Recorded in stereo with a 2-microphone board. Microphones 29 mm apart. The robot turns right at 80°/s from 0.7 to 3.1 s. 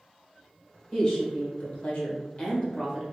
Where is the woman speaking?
10° left, 1.6 m; by 3.0 s straight behind, 1.6 m.